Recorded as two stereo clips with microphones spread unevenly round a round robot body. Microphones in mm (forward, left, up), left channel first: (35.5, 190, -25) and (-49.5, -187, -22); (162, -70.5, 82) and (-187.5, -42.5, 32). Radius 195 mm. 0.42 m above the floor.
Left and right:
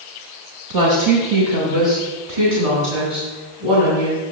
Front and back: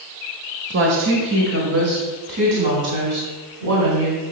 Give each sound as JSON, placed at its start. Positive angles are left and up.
{"t": 0.7, "sound": "a woman speaking", "azimuth_deg": -135, "distance_m": 1.8}